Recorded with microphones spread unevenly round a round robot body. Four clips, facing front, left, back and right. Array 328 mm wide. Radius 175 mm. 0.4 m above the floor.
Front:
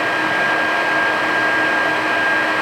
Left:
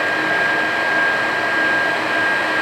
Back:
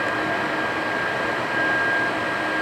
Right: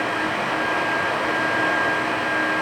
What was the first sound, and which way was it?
Only background noise.